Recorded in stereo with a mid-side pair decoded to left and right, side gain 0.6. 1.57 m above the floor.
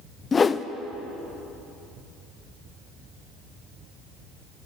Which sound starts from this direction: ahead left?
A whoosh, at 0.3 s.